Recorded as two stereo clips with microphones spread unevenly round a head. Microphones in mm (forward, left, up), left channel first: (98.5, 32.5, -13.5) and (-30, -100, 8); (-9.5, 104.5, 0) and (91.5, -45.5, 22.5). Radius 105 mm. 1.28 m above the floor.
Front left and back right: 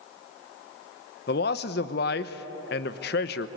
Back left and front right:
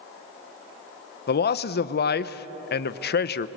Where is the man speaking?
90° left, 0.9 m.